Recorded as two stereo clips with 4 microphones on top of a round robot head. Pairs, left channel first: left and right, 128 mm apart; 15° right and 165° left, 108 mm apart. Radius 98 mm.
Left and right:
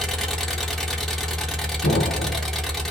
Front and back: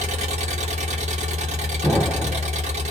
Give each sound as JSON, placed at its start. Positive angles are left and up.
{"t": 0.0, "sound": "an engine running", "azimuth_deg": 175, "distance_m": 0.8}
{"t": 1.8, "sound": "an explosion", "azimuth_deg": 75, "distance_m": 0.9}